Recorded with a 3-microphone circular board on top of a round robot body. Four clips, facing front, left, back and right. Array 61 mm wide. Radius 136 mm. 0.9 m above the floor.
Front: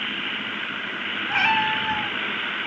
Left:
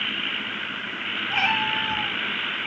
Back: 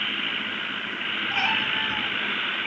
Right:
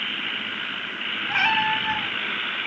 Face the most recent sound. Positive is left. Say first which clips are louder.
# right 2 dB, front 6 dB
turn(degrees=-50)